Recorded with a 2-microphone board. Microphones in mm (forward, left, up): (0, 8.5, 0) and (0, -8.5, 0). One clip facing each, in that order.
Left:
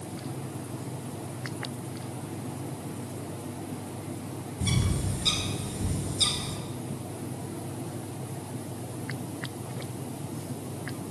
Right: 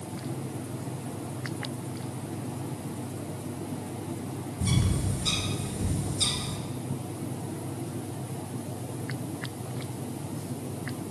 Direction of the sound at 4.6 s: 30° left (ahead or behind).